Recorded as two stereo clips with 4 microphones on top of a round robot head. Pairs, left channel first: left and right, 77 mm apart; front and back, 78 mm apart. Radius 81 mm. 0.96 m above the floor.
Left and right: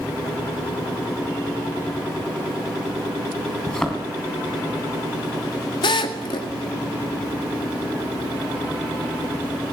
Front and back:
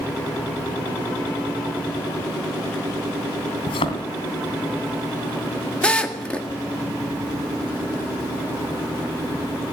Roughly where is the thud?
Ahead.